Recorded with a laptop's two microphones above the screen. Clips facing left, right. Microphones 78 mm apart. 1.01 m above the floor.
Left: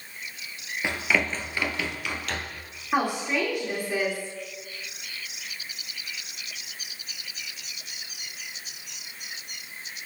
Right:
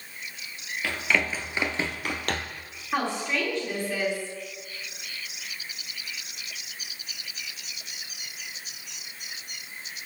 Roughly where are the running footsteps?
Left.